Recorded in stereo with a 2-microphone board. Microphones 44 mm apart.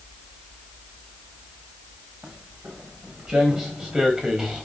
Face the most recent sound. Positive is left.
turn(degrees=-15)  # may be behind; listen again after turning